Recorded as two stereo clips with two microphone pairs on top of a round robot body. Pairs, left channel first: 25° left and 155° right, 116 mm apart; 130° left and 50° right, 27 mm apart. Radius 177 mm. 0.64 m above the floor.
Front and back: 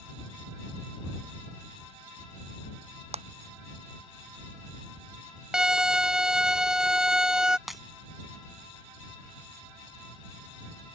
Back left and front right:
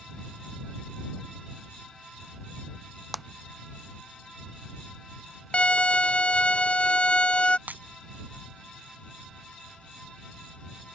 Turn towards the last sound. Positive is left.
turn(degrees=-65)